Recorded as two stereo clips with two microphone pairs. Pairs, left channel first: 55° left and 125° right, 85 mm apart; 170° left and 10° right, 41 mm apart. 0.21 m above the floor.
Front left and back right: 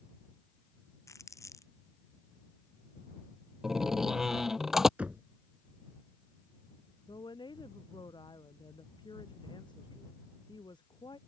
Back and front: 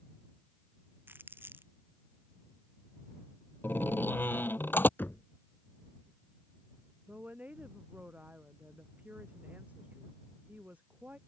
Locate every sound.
1.1 s crumpling: 5° left
3.6 s a door slam: 150° left
5.0 s knocking: 160° left
7.1 s a woman speaking: 35° left